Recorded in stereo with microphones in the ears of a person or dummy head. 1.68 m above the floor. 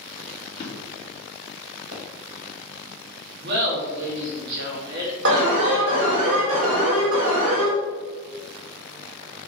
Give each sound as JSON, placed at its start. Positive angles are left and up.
{"t": 0.6, "sound": "a drawer", "side_deg": 30, "distance_m": 1.8}
{"t": 1.9, "sound": "a pop", "side_deg": -60, "distance_m": 2.0}
{"t": 3.4, "sound": "laughter", "side_deg": -60, "distance_m": 2.0}
{"t": 5.2, "sound": "an alarm", "side_deg": -75, "distance_m": 2.0}